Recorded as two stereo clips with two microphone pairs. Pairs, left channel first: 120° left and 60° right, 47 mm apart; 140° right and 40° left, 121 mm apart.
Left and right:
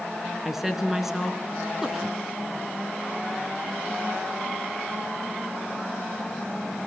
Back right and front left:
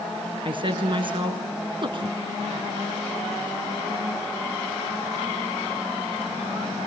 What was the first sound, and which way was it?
A woman speaking, 20° left.